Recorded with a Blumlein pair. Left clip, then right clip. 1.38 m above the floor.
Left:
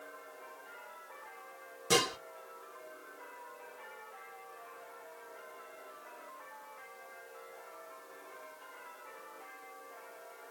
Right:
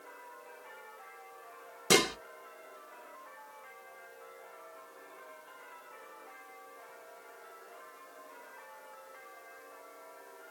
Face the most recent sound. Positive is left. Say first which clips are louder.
# right 3 dB
turn(degrees=-25)